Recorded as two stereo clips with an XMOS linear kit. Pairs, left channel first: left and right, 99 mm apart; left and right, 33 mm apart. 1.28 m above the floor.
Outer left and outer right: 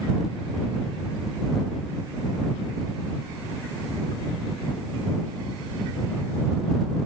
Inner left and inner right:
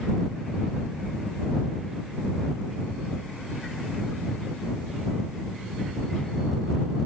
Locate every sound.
Only background noise.